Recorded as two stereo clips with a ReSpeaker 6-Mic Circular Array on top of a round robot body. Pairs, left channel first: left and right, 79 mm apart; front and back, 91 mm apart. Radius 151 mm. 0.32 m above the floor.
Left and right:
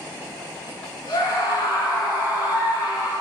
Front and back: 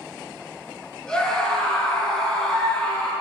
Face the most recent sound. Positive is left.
turn(degrees=85)